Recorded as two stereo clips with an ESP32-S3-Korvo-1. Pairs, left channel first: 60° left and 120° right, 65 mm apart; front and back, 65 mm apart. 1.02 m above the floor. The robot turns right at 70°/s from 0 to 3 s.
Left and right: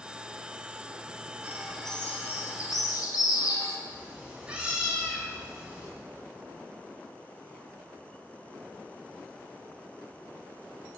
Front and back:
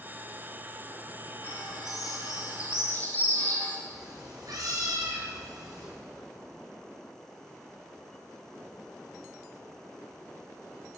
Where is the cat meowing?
170° left, 3 m.